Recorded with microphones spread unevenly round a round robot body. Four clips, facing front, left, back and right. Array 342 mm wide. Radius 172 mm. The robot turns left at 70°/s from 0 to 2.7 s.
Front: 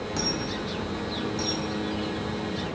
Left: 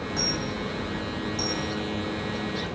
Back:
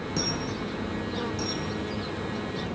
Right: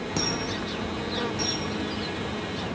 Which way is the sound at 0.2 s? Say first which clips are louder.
Right 2 dB, even; 135° right.